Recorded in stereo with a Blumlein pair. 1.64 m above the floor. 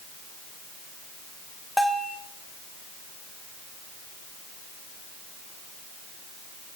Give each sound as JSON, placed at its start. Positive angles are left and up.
{"t": 1.8, "sound": "a bell", "azimuth_deg": 0, "distance_m": 1.3}